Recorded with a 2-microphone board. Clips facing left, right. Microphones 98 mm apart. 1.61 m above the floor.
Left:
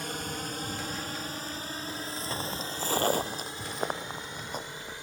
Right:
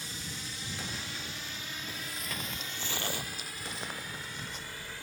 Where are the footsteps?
20° left (ahead or behind); by 4.9 s 50° left (ahead or behind).